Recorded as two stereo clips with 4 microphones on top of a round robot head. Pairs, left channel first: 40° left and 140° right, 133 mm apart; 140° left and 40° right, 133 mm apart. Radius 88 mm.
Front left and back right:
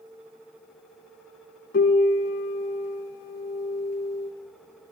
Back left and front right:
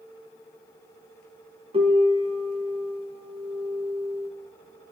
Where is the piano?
10° left, 1.0 m.